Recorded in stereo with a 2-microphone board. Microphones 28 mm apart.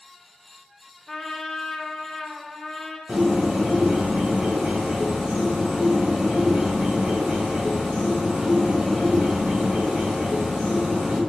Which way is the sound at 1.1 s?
5° left (ahead or behind).